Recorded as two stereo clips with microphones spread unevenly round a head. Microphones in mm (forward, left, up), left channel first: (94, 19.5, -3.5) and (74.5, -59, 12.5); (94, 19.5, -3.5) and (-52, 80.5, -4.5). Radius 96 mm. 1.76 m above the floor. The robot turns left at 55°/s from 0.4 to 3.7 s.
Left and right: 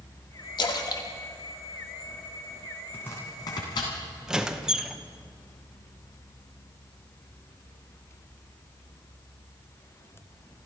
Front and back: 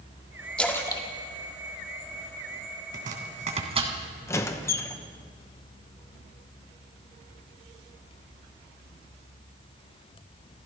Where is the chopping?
160° left, 2.5 m; by 4.0 s 115° left, 2.5 m.